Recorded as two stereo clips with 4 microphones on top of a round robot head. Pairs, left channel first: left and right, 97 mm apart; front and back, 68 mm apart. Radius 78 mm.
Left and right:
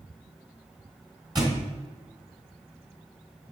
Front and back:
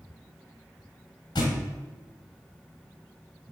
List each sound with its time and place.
1.4 s a thud: 40° right, 2.5 m